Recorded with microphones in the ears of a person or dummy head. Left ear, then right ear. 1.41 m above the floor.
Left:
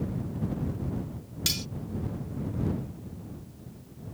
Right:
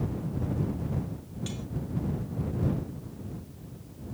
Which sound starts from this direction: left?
Cutlery clinking, at 1.5 s.